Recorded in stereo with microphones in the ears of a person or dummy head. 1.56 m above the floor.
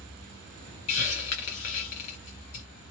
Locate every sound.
0.9 s a hiss: 40° left (ahead or behind), 1.5 m